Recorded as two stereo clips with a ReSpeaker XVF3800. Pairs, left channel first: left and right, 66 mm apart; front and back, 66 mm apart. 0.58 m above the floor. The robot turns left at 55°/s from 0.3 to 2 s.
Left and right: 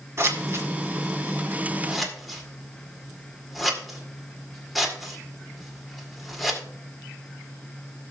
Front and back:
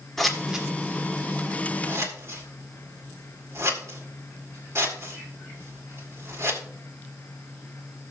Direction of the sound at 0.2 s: 85° right.